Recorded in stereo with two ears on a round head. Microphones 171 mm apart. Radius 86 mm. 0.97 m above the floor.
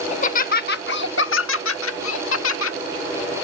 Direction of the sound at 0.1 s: 35° left (ahead or behind).